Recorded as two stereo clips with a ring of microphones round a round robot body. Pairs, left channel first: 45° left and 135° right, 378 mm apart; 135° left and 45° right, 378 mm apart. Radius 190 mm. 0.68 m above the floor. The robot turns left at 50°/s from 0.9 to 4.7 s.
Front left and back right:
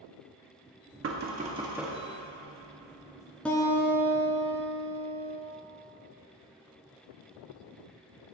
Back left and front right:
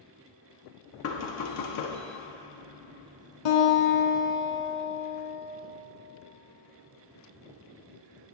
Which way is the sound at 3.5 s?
130° left.